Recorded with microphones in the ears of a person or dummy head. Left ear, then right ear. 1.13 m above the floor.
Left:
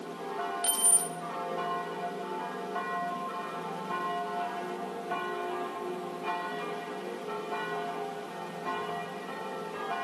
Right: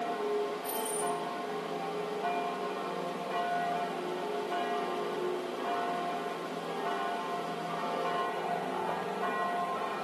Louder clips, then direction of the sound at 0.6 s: Left 2 dB; 60° left (ahead or behind).